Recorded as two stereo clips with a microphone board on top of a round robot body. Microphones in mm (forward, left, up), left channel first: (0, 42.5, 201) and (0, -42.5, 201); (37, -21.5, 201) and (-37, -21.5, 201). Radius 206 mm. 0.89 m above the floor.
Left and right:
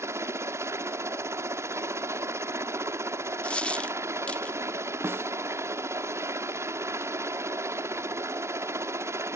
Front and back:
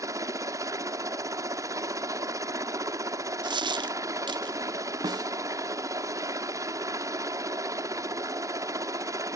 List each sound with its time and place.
0.0 s a helicopter: 145° right
3.4 s a dropped coin: 170° left
5.0 s a snare drum: 155° right